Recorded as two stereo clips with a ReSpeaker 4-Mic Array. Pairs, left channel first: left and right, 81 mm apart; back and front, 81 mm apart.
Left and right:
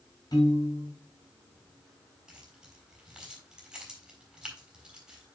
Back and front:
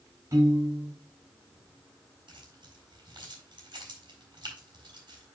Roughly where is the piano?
Ahead left.